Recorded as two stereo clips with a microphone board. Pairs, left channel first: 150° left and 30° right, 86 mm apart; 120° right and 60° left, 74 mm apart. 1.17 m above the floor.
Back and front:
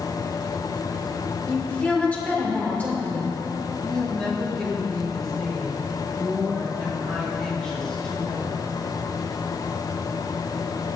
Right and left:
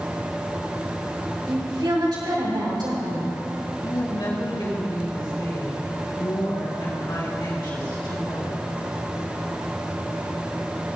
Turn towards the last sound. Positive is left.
turn(degrees=-130)